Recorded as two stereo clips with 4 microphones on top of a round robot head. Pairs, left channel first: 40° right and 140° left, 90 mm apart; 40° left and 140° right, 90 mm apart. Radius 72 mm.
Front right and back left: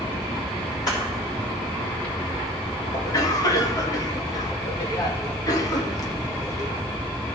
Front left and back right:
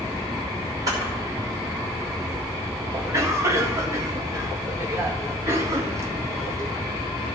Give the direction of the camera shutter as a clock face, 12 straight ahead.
3 o'clock.